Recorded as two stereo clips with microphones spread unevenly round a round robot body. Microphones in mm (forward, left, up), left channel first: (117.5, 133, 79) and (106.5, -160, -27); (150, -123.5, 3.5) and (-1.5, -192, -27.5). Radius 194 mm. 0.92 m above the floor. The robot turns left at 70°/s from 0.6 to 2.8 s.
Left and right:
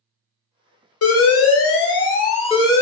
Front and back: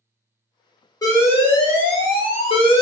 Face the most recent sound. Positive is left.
turn(degrees=-30)